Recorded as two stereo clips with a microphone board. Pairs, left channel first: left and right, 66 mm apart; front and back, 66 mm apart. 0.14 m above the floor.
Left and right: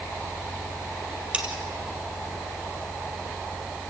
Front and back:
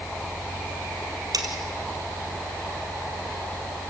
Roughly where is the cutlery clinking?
Behind.